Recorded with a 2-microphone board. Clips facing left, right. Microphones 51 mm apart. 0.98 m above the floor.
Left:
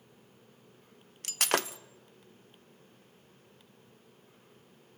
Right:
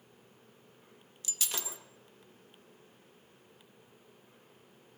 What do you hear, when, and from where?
1.2 s breaking glass: 65° left (ahead or behind), 0.6 m